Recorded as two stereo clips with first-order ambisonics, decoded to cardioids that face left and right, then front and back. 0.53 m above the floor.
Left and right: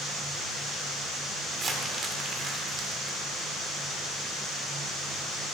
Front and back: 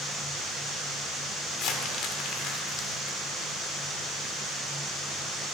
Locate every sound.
1.5 s crumpling: 25° right, 1.4 m